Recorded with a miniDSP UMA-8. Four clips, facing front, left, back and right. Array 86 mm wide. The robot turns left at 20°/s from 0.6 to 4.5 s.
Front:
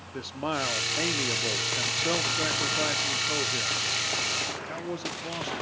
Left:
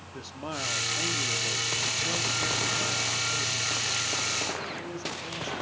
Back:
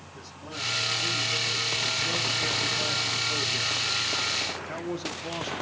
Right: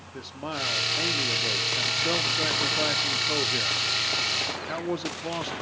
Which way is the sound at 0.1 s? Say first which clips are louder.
Right 2 dB, front 11 dB; 15° right.